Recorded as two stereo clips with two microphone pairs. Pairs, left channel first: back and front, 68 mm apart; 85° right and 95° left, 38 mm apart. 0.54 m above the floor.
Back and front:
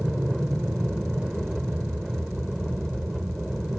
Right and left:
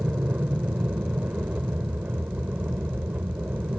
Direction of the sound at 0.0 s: 85° left.